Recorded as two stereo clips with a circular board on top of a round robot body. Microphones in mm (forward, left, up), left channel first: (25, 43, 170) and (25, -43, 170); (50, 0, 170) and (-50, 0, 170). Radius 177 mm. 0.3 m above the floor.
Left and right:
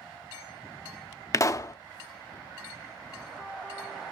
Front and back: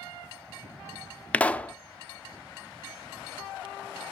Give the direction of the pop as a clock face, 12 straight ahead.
10 o'clock.